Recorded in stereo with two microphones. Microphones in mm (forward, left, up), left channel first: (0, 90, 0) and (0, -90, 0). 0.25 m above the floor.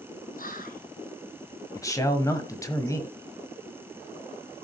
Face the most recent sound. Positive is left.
turn(degrees=20)  # may be behind; listen again after turning